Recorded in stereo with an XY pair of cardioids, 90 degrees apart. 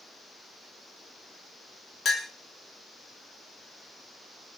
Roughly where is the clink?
Ahead left.